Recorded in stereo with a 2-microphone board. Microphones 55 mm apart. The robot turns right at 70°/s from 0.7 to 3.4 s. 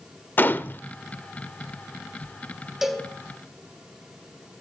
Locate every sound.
0.4 s a gunshot: 35° left (ahead or behind), 0.8 m
2.8 s a cowbell: 10° right (ahead or behind), 2.5 m; by 3.1 s 10° left (ahead or behind), 2.5 m